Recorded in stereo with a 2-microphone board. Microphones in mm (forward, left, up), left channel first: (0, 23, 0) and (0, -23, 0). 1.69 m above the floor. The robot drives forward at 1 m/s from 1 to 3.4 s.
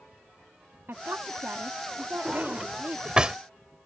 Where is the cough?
I don't hear a cough.